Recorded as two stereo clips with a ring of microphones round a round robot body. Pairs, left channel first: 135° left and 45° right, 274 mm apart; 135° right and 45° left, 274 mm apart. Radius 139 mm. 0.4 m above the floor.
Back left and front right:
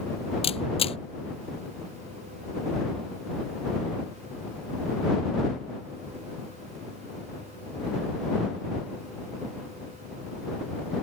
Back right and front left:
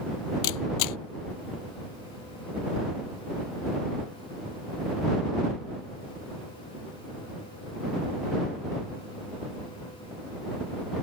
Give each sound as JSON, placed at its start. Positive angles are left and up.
{"t": 0.4, "sound": "a camera shutter", "azimuth_deg": -155}